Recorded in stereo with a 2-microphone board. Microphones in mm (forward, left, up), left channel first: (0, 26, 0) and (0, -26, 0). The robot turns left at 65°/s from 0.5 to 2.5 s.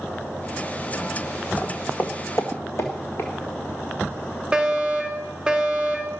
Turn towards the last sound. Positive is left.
turn(degrees=-15)  # may be behind; listen again after turning